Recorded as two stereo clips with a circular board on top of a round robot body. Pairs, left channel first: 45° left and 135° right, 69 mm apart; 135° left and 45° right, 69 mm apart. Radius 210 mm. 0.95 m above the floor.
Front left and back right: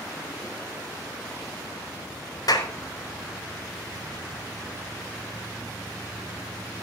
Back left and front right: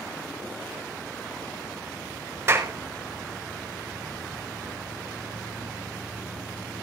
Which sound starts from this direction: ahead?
A clap, at 2.5 s.